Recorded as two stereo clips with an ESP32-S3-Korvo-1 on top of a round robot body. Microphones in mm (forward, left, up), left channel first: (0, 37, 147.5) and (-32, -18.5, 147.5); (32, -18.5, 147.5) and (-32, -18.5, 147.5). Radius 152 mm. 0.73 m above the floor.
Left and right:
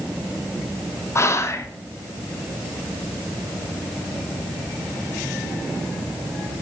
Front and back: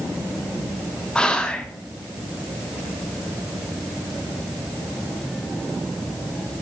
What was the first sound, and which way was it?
Whispering, 70° left.